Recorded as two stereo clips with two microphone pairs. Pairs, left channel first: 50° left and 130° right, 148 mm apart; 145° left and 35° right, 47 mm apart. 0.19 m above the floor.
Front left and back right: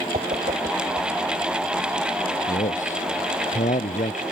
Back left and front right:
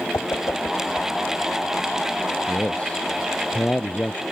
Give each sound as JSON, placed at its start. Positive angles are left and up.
{"t": 0.1, "sound": "a whoosh", "azimuth_deg": -175}
{"t": 2.5, "sound": "a man speaking", "azimuth_deg": 80}